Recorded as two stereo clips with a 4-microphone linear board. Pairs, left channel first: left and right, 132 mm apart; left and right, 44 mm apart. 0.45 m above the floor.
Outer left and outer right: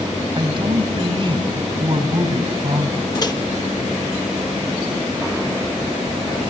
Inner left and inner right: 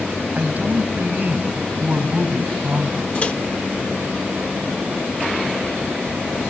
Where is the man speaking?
40° right (ahead or behind), 3.5 m.